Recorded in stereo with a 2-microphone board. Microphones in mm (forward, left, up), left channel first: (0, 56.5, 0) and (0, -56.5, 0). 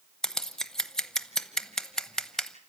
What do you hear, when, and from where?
0.2 s scissors: 5° left (ahead or behind), 0.9 m